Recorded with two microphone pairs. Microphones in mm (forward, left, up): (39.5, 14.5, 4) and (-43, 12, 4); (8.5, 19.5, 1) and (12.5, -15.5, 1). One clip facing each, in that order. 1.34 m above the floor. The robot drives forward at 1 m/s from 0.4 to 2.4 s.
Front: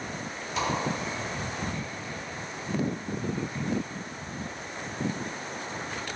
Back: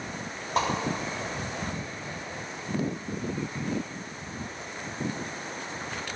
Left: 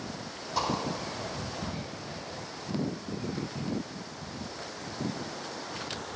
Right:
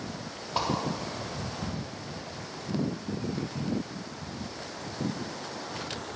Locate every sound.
0.6 s a whoosh: 140° right, 3 m